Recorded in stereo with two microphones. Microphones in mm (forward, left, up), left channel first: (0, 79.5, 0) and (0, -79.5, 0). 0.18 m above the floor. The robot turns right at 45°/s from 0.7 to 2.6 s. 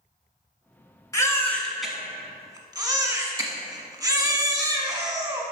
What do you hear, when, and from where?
1.1 s a baby crying: 150° left, 1.3 m; by 5.4 s 145° right, 1.3 m